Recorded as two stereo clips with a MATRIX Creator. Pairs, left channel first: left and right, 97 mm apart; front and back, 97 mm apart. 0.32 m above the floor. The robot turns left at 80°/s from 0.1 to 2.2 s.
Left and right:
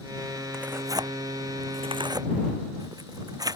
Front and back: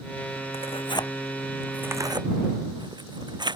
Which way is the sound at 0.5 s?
5° right.